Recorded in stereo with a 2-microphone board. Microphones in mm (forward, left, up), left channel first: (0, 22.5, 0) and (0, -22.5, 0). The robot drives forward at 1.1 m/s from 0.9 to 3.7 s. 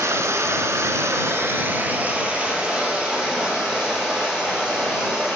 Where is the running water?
80° right, 0.7 m; by 5.4 s 15° right (ahead or behind), 3 m.